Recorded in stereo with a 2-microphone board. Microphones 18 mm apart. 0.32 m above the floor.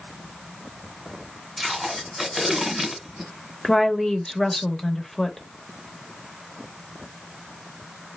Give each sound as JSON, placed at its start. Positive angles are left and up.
{"t": 1.6, "sound": "tape being pulled", "side_deg": -5, "distance_m": 1.1}
{"t": 3.6, "sound": "a woman speaking", "side_deg": 25, "distance_m": 0.9}